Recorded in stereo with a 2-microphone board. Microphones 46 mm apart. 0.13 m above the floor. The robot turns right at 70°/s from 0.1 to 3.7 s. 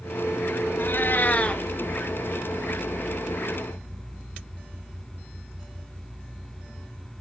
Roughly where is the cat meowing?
Left.